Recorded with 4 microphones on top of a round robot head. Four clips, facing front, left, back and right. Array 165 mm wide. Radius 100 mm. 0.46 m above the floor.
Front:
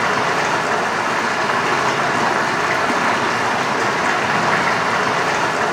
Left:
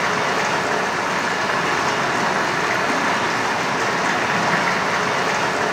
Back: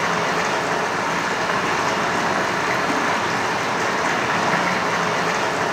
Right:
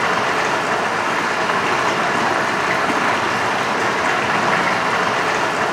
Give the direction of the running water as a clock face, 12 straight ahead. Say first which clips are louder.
Right 2 dB, front 3 dB; 2 o'clock.